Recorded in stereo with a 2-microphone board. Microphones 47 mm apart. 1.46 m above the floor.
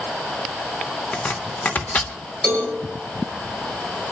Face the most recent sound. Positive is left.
turn(degrees=10)  # may be behind; listen again after turning